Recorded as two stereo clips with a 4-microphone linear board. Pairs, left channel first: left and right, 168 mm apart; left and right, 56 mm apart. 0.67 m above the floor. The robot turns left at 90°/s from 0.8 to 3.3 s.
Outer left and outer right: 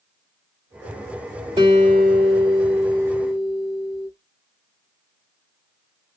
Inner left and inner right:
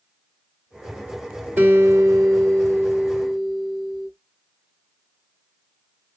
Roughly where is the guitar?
Ahead right.